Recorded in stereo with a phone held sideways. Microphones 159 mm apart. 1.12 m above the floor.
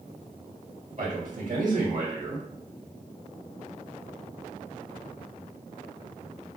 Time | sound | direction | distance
1.0 | a man speaking | 60° right (ahead or behind) | 1.6 m